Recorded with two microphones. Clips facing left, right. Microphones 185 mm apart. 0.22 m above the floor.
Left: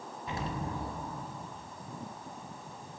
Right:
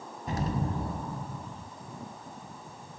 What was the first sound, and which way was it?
An explosion, 40° right (ahead or behind).